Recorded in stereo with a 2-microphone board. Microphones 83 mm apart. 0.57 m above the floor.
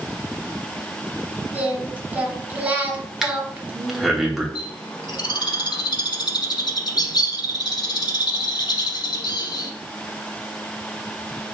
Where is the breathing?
5° right (ahead or behind), 1.0 m.